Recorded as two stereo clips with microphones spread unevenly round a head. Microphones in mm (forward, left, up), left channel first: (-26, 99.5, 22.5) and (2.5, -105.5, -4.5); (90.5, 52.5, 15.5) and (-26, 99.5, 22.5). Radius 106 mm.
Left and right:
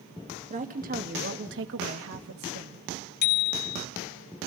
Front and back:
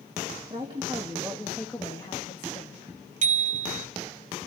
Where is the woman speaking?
135° right, 2.5 m; by 2.8 s 70° right, 2.5 m.